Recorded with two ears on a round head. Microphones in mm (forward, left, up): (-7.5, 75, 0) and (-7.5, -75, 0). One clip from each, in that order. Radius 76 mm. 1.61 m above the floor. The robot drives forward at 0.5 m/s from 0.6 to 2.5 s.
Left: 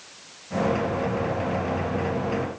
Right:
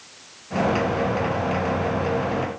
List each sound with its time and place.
Only background noise.